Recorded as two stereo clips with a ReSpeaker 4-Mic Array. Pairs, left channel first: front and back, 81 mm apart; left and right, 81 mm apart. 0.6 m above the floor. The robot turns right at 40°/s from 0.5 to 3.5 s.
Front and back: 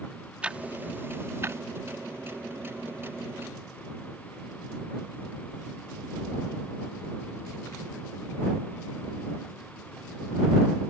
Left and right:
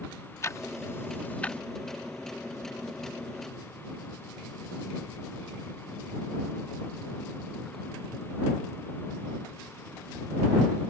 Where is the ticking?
115° left; by 1.6 s 160° left.